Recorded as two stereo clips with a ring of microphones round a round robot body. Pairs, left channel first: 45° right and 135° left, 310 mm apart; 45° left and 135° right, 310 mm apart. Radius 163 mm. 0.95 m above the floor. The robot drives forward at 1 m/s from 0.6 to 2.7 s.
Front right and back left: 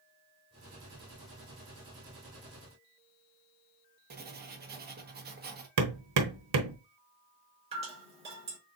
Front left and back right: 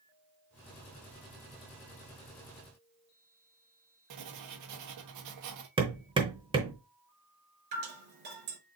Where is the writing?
165° right, 1.2 m.